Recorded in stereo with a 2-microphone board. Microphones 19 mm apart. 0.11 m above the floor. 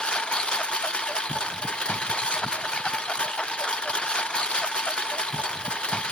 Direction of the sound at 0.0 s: 55° left (ahead or behind).